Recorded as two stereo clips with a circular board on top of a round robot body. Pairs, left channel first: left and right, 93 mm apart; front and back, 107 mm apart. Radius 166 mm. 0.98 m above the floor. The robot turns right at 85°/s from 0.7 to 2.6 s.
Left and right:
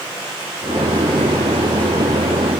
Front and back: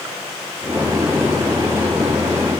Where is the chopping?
No chopping in this recording.